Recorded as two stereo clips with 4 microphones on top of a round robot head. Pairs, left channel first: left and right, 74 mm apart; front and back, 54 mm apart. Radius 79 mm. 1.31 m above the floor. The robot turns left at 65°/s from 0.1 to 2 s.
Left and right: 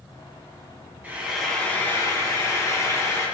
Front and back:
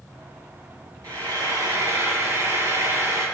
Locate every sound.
1.0 s frying: 160° right, 4.5 m; by 3.3 s 140° left, 4.5 m